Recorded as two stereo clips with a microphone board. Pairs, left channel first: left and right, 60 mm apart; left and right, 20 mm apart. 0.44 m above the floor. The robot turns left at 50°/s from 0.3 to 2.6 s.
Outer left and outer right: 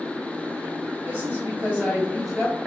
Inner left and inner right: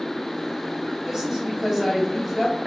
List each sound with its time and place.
1.1 s a woman speaking: 115° right, 2.0 m; by 2.5 s 170° left, 2.0 m